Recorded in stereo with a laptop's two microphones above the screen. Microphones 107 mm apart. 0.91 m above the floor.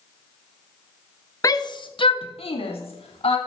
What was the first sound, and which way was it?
A shout, 30° left (ahead or behind).